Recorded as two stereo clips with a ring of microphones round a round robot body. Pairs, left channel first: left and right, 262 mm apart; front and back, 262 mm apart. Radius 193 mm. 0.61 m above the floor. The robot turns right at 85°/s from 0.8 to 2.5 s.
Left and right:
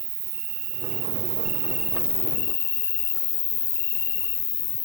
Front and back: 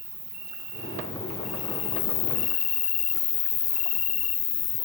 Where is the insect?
110° right, 0.8 m; by 4.9 s 35° left, 0.8 m.